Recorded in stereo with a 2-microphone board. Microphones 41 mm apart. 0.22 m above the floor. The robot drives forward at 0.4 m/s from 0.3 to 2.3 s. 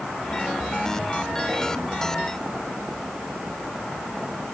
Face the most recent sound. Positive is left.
No sound to turn to.